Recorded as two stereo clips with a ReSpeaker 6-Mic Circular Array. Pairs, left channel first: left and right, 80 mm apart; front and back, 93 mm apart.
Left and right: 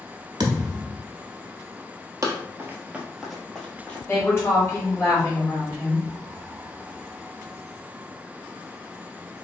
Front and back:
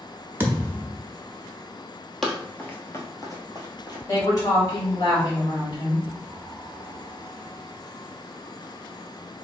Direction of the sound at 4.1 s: 35° left.